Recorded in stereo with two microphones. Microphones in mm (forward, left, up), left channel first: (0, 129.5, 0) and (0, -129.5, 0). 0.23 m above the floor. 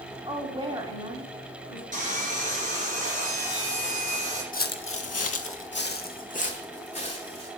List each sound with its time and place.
0.2 s a woman speaking: 15° right (ahead or behind), 1.2 m
1.9 s sawing: 30° right (ahead or behind), 2.5 m
4.5 s footsteps: 35° left (ahead or behind), 0.7 m; by 7.5 s 20° left (ahead or behind), 2.0 m